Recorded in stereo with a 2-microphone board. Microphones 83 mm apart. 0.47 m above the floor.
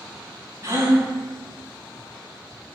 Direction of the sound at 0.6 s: 30° right (ahead or behind).